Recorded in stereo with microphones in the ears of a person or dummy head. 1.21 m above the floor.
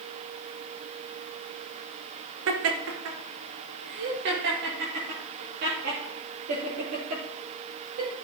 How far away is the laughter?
About 0.9 m.